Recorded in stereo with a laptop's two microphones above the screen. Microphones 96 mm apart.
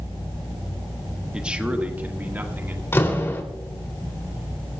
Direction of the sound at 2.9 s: 25° left (ahead or behind).